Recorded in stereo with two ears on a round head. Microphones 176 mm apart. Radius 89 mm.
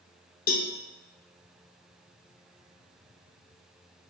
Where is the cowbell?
50° left (ahead or behind), 1.2 m.